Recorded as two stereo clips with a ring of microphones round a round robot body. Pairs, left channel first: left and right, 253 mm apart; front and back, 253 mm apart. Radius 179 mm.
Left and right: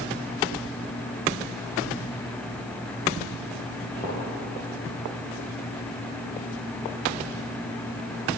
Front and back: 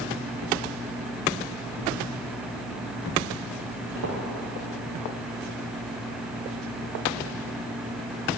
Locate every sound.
4.0 s footsteps: 165° left, 2.5 m